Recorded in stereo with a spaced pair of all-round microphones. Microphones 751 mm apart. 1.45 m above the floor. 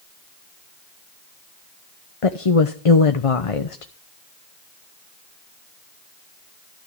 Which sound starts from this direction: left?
A woman speaking, at 2.2 s.